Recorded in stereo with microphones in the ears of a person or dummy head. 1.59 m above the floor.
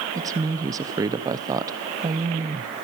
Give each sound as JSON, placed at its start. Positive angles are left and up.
{"t": 0.1, "sound": "a woman speaking", "side_deg": -20, "distance_m": 0.8}